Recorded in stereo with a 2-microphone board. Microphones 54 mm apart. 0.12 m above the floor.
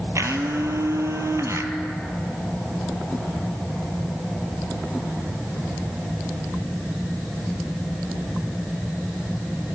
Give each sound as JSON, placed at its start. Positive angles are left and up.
{"t": 0.1, "sound": "a blender", "side_deg": -70, "distance_m": 1.0}